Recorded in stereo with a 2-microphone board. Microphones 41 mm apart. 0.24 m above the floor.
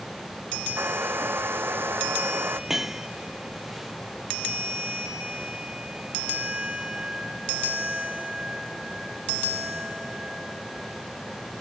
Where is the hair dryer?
70° right (ahead or behind).